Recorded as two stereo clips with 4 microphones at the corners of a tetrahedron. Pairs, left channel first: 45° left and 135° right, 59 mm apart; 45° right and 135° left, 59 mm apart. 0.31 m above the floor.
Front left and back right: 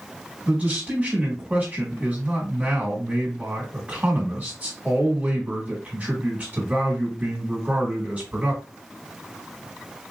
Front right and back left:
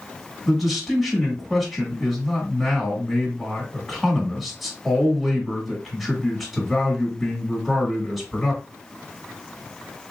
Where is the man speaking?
140° right, 1.1 m.